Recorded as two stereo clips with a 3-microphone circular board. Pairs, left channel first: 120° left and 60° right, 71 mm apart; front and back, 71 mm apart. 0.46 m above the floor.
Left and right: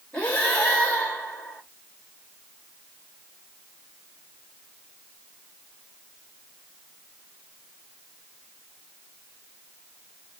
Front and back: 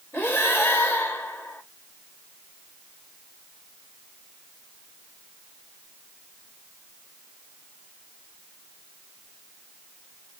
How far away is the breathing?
About 0.9 m.